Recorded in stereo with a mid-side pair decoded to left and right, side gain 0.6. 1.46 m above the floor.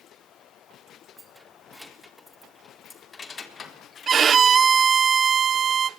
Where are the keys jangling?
10° right, 3 m; by 4.3 s 45° left, 3.5 m.